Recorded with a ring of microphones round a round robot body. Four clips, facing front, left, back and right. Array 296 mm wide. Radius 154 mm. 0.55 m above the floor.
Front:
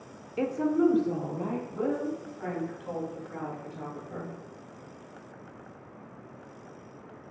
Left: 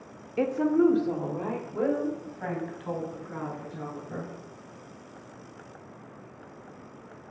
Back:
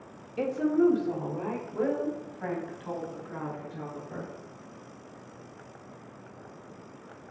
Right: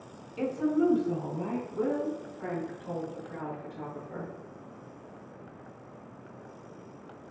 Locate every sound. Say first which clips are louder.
0.4 s a woman speaking: left 4 dB, back 1 dB; 65° left, 1.2 m; by 4.3 s 110° left, 5.5 m